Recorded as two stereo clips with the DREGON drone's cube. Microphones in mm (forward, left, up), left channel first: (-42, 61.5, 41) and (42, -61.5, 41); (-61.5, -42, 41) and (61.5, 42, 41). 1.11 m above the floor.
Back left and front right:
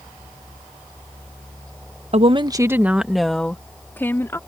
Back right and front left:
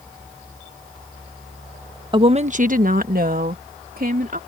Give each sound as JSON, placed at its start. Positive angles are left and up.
{"t": 2.1, "sound": "a woman speaking", "azimuth_deg": -20}